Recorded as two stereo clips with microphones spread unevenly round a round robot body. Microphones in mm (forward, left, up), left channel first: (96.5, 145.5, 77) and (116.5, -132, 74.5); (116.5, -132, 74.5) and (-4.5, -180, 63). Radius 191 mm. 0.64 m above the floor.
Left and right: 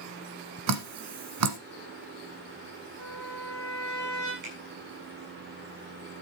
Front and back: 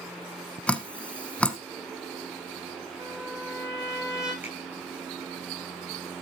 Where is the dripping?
60° right, 1.4 m.